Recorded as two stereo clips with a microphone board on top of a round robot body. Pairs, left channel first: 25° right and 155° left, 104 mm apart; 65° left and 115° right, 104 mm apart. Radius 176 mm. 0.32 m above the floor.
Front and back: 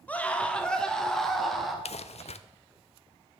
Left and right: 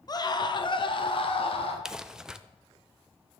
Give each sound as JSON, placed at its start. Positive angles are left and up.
{"t": 0.1, "sound": "a scream", "azimuth_deg": 45, "distance_m": 1.6}
{"t": 1.9, "sound": "crumpling", "azimuth_deg": -30, "distance_m": 0.6}